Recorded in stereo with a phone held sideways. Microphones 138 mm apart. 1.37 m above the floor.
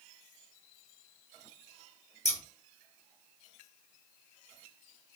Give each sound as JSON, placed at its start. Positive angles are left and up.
{"t": 2.2, "sound": "scissors", "side_deg": 55, "distance_m": 1.1}